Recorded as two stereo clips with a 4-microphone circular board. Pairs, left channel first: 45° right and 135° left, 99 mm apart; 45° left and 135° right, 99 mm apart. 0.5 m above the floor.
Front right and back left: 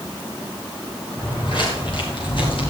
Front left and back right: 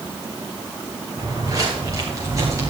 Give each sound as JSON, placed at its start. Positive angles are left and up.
{"t": 1.2, "sound": "footsteps", "azimuth_deg": -85, "distance_m": 6.5}